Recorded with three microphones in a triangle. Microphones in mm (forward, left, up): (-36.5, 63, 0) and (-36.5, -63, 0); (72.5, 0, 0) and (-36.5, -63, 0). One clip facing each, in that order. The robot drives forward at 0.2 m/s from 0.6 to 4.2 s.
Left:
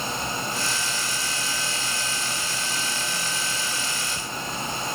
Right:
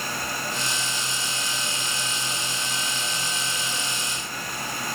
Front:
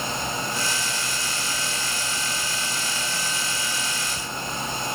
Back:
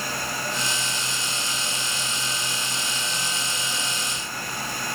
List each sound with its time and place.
Only background noise.